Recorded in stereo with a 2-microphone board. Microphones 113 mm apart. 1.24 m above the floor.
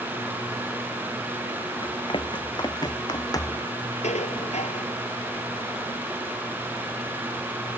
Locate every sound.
1.8 s running footsteps: 45° left (ahead or behind); by 3.7 s 30° left (ahead or behind)
4.0 s dishes clattering: 80° left